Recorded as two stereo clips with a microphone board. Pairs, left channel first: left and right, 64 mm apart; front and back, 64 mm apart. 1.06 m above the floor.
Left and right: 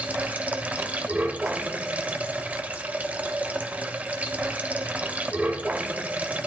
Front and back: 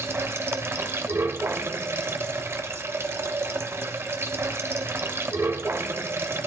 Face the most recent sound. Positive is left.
turn(degrees=-150)